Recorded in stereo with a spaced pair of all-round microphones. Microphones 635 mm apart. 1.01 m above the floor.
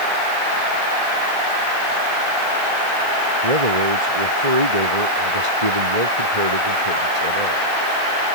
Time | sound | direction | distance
3.4 | a man speaking | 80° right | ?